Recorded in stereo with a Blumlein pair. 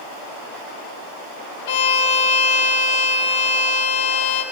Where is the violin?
55° left, 2.5 m.